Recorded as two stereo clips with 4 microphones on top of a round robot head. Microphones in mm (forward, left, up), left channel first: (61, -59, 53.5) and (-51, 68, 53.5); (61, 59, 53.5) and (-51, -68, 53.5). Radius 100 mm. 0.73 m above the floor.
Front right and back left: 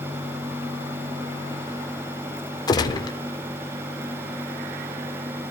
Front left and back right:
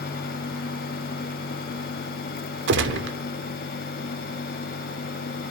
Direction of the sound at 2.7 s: 115° right.